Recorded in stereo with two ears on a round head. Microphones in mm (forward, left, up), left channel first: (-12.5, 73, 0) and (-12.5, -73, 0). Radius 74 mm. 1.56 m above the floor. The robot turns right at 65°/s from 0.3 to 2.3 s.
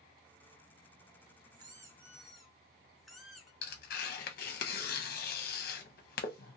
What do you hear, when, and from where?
1.5 s a squeak: 50° right, 0.5 m; by 3.5 s straight ahead, 0.5 m
3.6 s tearing paper: 60° left (ahead or behind), 0.6 m